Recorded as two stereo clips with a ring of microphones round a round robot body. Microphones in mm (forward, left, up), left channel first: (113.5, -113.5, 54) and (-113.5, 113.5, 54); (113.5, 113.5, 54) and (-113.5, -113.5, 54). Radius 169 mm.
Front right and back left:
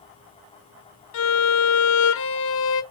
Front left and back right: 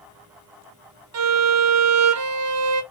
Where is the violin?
95° right, 0.5 m.